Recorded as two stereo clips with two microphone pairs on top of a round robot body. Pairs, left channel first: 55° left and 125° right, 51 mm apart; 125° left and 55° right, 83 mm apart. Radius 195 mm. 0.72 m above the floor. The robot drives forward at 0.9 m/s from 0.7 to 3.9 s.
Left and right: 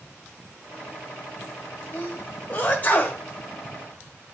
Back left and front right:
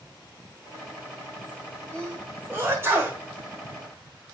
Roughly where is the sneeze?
Ahead.